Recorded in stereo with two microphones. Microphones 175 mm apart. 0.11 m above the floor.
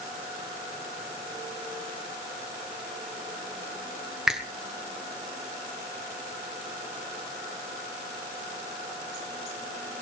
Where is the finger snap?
5° right (ahead or behind), 1.4 m.